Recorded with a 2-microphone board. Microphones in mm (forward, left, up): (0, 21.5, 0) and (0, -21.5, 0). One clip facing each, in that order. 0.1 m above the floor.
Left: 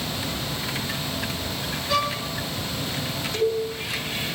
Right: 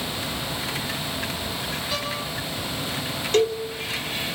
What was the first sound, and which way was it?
A violin, 85° left.